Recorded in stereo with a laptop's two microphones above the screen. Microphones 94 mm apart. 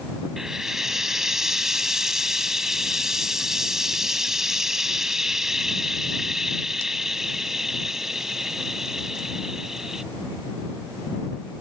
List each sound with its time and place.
0.4 s frying: 5° right (ahead or behind)